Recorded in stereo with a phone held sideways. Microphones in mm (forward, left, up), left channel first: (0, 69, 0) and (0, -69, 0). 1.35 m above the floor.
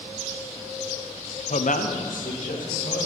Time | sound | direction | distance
1.5 | a man speaking | 55° left (ahead or behind) | 0.5 m